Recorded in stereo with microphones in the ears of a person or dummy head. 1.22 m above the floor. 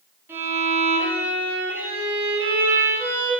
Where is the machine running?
I don't hear a machine running.